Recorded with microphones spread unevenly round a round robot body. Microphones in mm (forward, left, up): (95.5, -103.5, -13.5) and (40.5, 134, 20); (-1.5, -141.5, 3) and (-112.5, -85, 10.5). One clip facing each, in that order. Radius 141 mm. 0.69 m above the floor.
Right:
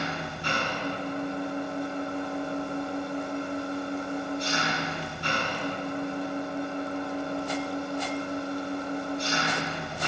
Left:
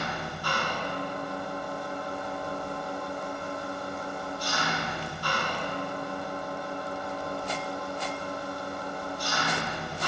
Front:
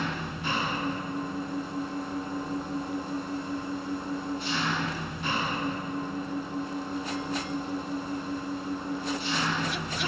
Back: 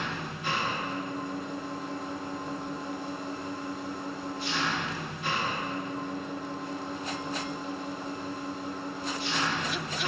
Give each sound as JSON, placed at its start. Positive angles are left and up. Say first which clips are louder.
{"t": 0.0, "sound": "an engine running", "louder": "right 2 dB, front 2 dB", "azimuth_deg": -10, "distance_m": 5.5}